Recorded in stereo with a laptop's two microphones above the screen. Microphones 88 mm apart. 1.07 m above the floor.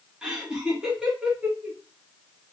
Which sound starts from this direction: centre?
Laughter, at 0.2 s.